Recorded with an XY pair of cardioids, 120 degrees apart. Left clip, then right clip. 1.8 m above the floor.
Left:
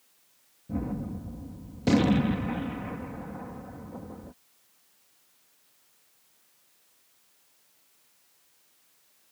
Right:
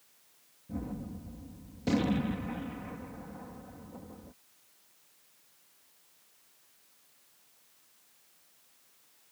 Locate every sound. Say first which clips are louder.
0.7 s a gunshot: left 6 dB; 40° left